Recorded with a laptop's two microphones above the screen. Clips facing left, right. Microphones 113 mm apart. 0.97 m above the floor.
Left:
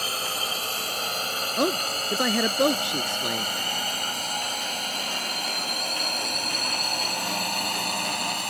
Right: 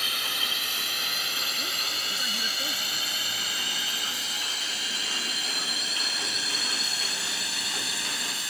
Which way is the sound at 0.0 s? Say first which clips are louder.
Left 5 dB; 35° left (ahead or behind).